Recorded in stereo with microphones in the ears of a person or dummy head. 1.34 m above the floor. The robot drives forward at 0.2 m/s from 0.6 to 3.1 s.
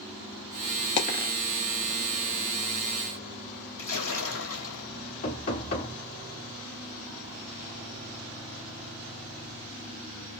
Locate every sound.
1.0 s a dropped coin: 35° left (ahead or behind), 0.8 m
3.8 s a splash: 65° left (ahead or behind), 1.5 m
5.2 s knocking: 45° left (ahead or behind), 1.4 m